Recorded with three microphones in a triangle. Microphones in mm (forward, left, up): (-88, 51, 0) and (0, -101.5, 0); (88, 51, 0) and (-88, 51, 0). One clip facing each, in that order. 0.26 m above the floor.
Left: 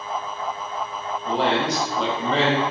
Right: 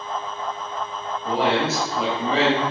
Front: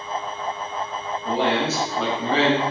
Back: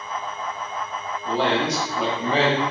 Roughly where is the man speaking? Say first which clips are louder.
Right 1 dB, even; ahead.